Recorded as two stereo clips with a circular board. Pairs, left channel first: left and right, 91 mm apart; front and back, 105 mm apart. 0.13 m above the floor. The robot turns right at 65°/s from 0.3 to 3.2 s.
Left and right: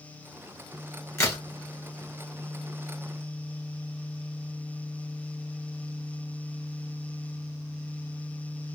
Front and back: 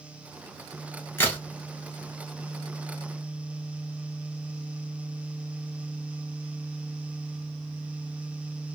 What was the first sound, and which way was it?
A crack, 55° left.